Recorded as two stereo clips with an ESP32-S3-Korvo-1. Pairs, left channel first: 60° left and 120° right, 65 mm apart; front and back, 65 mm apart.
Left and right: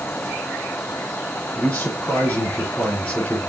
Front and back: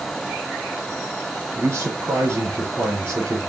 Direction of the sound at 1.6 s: 125° left.